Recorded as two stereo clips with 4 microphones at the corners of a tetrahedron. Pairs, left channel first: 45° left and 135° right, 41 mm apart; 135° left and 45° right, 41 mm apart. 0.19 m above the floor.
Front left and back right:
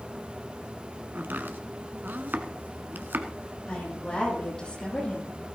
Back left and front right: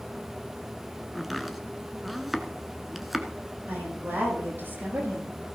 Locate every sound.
1.1 s chopping: 130° right, 1.2 m
3.7 s a woman speaking: 20° right, 7.5 m